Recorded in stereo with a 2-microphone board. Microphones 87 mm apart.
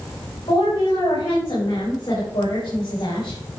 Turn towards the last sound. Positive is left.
turn(degrees=65)  # may be behind; listen again after turning